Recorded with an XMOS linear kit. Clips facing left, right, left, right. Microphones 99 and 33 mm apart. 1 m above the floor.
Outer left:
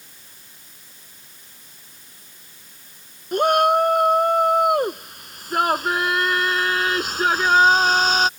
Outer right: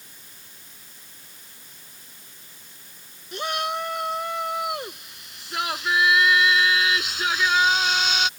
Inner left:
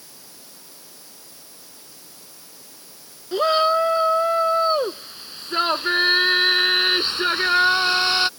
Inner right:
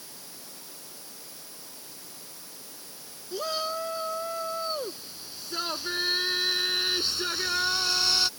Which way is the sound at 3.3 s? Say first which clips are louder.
Outer left 11 dB, inner left 13 dB; 45° left (ahead or behind).